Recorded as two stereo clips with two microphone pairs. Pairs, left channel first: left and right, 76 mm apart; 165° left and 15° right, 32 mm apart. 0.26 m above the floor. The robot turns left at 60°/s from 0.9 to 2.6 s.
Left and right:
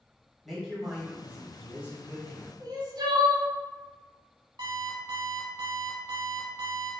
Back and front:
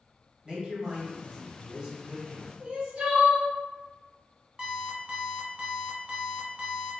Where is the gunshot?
I don't hear a gunshot.